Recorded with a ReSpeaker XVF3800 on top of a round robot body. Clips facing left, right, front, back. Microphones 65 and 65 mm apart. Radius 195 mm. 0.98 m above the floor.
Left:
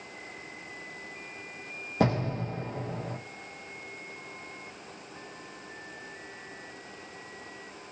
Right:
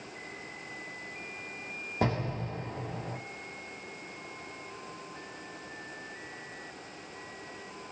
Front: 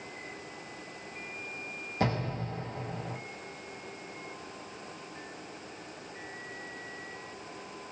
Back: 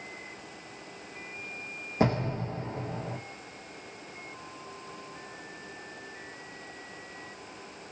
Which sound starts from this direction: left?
An explosion, at 2.0 s.